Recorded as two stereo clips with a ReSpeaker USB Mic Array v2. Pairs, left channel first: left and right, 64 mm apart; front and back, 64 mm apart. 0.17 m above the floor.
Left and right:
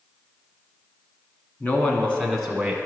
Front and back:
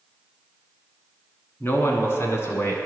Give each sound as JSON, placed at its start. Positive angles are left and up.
{"t": 1.6, "sound": "a man speaking", "azimuth_deg": 40, "distance_m": 1.4}